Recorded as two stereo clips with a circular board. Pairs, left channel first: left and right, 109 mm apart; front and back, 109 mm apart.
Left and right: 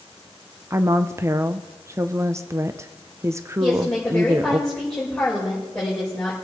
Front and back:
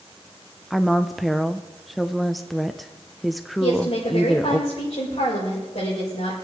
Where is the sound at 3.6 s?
5° left, 4.5 m.